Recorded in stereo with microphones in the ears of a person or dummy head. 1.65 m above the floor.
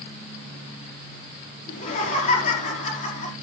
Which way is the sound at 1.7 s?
45° left (ahead or behind).